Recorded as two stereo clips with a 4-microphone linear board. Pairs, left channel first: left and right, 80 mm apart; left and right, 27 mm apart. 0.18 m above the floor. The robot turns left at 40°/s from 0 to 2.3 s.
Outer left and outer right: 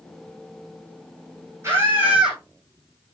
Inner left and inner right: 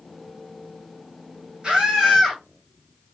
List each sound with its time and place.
1.6 s a scream: 35° right (ahead or behind), 9 m; by 2.4 s 10° right (ahead or behind), 9 m